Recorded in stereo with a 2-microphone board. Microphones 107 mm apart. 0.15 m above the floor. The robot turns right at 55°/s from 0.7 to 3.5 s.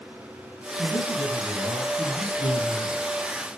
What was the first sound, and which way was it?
A man speaking, 10° right.